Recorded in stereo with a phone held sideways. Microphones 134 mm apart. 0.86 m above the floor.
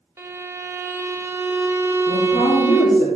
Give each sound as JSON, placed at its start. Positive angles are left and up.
{"t": 0.2, "sound": "a violin", "side_deg": -20, "distance_m": 0.6}
{"t": 2.1, "sound": "a woman speaking", "side_deg": 65, "distance_m": 1.9}